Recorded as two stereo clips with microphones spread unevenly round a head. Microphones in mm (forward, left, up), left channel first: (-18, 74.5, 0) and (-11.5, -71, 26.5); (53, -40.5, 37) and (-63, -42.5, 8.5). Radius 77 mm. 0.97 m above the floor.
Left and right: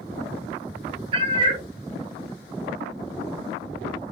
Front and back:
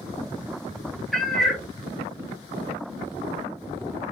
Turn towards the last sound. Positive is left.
turn(degrees=-70)